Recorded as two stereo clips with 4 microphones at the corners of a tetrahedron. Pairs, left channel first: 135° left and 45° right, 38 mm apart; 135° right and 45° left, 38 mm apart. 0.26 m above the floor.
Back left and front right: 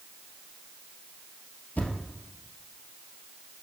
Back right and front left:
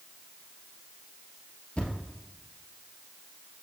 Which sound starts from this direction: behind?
A thud, at 1.8 s.